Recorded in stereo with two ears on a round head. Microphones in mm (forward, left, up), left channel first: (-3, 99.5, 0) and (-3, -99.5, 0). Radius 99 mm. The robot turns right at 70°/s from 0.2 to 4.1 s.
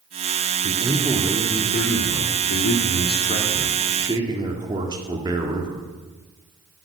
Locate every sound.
0.6 s a man speaking: 40° right, 1.9 m; by 5.8 s 160° right, 1.9 m